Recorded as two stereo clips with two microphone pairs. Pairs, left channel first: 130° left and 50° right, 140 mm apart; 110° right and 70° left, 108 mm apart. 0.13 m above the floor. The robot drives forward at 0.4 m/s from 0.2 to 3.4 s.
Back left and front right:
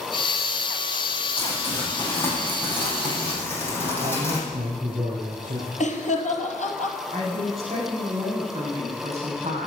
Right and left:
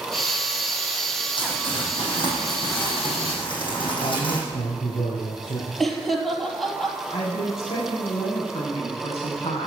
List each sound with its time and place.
1.4 s crumpling: 150° right, 6.5 m; by 4.4 s 155° right, 7.5 m
4.0 s a man speaking: 85° right, 5 m
5.8 s laughter: 160° left, 3 m
7.1 s a woman speaking: 90° right, 8.5 m